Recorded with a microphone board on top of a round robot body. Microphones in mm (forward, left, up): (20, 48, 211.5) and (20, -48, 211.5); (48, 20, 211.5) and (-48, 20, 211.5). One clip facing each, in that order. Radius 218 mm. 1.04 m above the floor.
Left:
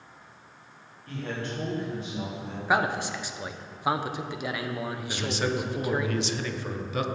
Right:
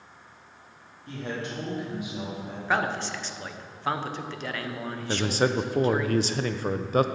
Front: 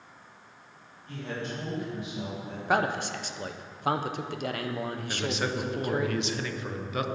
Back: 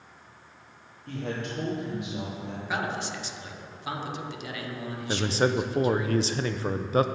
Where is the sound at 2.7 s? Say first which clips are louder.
Left 1 dB, front 5 dB; 15° left, 1.0 m.